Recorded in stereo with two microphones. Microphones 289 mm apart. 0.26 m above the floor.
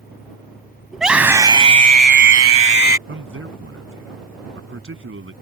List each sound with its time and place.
0.9 s a scream: centre (ahead or behind); by 3.0 s 50° right (ahead or behind)
3.1 s a man speaking: 45° right (ahead or behind)